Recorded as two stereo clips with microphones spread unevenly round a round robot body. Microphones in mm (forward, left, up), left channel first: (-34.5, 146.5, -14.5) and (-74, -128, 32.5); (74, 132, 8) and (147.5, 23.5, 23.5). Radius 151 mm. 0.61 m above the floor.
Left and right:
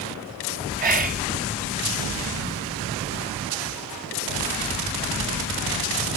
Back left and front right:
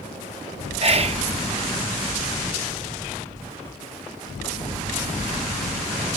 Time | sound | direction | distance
0.8 | whispering | 35° right | ?